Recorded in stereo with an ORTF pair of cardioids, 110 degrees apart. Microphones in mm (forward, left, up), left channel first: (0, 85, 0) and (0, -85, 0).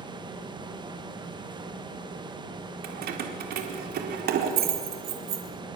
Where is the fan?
25° right, 2.5 m.